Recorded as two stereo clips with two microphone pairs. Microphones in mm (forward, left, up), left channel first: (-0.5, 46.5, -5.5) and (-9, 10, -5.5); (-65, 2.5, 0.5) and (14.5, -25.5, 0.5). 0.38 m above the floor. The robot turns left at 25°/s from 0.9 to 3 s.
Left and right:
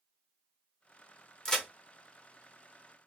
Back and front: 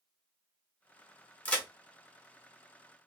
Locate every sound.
1.4 s a crack: 130° left, 1.0 m; by 1.6 s 125° left, 1.0 m